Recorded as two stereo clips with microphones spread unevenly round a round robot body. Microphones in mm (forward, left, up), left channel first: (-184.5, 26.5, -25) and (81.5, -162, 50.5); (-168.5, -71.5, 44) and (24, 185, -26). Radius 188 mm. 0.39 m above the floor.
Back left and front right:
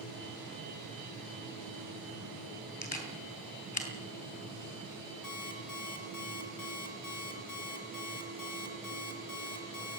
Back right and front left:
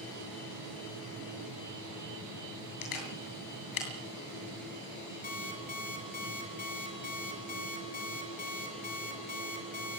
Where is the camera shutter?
150° right, 8 m.